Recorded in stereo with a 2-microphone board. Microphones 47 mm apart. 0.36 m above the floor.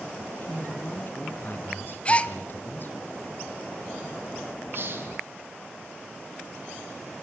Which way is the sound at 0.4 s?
50° left (ahead or behind).